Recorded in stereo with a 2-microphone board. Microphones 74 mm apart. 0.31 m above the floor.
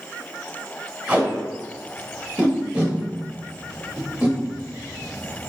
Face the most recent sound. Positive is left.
turn(degrees=-20)  # may be behind; listen again after turning